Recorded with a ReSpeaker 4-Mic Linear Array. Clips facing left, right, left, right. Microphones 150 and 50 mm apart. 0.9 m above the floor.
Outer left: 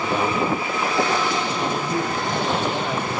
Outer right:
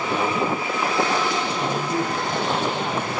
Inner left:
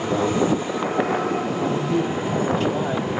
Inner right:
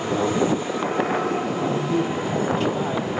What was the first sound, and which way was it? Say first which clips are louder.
A man speaking: even, inner left 1 dB; 80° left.